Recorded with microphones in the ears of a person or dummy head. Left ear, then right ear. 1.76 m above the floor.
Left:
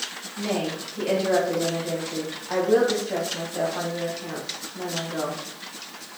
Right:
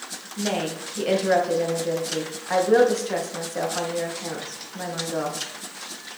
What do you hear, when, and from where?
0.4 s a woman speaking: 75° right (ahead or behind), 2.5 m